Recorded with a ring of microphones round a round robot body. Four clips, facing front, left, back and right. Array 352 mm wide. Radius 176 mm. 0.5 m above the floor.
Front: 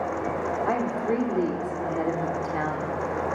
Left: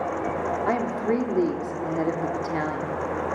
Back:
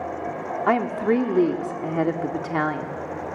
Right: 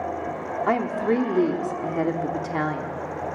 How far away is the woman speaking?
About 1.3 m.